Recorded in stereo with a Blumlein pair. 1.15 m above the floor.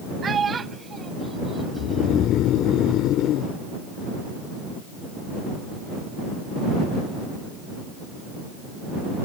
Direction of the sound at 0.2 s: 20° right.